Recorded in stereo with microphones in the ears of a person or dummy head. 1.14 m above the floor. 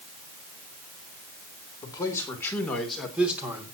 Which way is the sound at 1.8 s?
15° left (ahead or behind).